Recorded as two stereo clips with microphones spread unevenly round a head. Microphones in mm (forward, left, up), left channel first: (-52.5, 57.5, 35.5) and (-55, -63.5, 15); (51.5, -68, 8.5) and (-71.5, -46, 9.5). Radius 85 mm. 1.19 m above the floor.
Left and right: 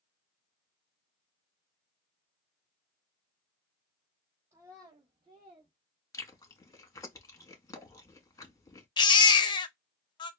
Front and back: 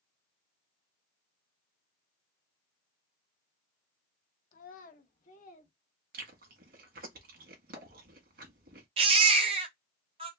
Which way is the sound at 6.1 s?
150° left.